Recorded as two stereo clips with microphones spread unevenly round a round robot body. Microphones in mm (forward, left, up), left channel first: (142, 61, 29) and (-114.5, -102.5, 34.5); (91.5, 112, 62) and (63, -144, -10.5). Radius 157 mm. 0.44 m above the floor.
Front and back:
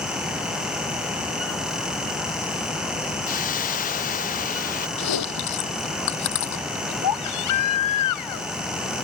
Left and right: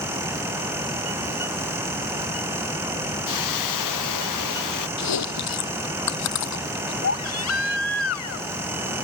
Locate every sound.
3.3 s a hiss: 100° left
5.0 s chewing: 70° left
7.0 s a baby crying: 50° left